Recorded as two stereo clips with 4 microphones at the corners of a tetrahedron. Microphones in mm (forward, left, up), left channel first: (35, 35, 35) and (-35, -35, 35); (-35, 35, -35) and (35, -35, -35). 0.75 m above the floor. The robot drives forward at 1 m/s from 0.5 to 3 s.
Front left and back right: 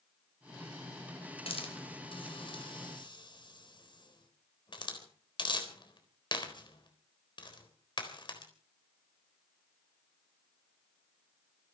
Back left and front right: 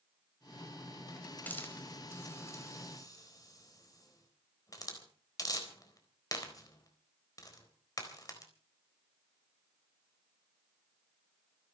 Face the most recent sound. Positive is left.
turn(degrees=85)